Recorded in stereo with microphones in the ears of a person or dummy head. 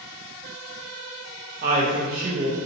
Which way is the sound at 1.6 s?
45° right (ahead or behind).